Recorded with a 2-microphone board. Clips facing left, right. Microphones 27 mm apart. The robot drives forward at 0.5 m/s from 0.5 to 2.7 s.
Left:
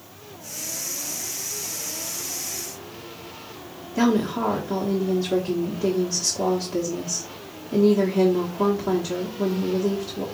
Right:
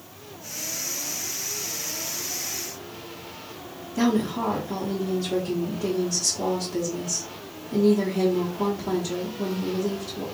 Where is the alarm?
I don't hear an alarm.